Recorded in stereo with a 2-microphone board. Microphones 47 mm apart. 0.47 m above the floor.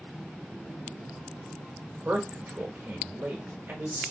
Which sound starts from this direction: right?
A man speaking, at 2.0 s.